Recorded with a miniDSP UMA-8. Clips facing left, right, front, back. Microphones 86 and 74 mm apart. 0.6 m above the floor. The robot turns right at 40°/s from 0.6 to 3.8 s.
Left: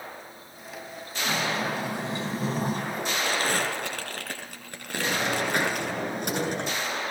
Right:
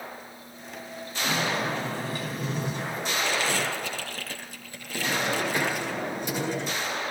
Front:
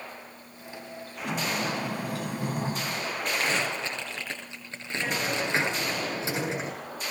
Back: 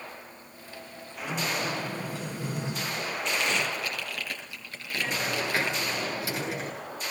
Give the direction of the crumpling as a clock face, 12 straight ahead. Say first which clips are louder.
Left 1 dB, front 1 dB; 11 o'clock.